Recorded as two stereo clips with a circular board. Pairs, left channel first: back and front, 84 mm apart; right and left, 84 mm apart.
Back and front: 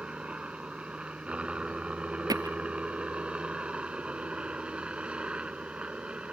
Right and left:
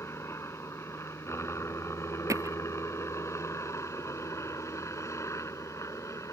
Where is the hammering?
40° left.